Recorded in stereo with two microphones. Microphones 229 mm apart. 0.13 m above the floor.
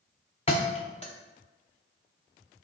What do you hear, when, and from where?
0.5 s a thud: 30° left (ahead or behind), 0.6 m